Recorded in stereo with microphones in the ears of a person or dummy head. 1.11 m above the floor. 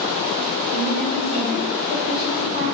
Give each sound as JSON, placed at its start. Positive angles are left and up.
{"t": 0.7, "sound": "a woman speaking", "side_deg": 0, "distance_m": 1.9}